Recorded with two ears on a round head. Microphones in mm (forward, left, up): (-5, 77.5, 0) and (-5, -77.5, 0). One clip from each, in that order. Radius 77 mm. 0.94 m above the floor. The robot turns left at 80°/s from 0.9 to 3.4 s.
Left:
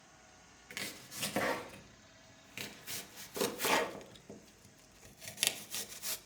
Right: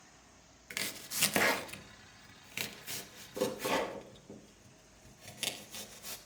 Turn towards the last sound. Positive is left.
turn(degrees=40)  # may be behind; listen again after turning